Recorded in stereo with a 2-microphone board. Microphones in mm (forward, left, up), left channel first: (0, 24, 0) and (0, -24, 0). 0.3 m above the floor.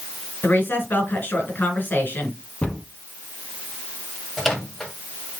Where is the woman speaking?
45° left (ahead or behind), 2.5 m.